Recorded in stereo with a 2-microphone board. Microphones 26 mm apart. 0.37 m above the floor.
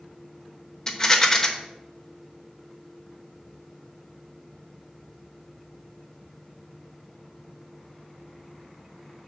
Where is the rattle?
25° left (ahead or behind), 0.8 m.